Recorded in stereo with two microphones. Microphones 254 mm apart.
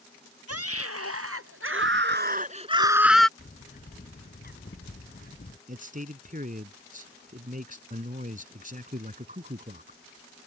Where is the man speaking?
30° right (ahead or behind).